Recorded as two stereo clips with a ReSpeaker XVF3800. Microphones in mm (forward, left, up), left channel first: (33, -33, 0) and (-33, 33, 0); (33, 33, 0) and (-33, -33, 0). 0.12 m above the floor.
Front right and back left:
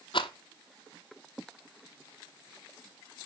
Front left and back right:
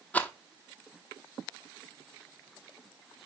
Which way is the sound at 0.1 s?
25° right.